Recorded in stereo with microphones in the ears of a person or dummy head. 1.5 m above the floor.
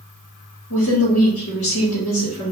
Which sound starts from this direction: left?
A woman speaking, at 0.7 s.